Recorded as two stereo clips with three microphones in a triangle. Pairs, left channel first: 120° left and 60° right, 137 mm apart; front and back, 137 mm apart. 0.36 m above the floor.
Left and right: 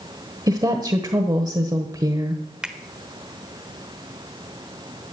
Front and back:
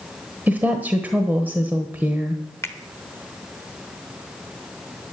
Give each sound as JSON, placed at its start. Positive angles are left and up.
{"t": 0.5, "sound": "a woman speaking", "azimuth_deg": -110, "distance_m": 1.2}
{"t": 2.6, "sound": "a finger snap", "azimuth_deg": 10, "distance_m": 1.1}